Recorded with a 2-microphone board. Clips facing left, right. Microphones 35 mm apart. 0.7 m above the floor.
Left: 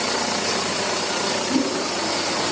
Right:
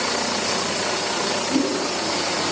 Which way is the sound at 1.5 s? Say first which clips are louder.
Even; centre (ahead or behind).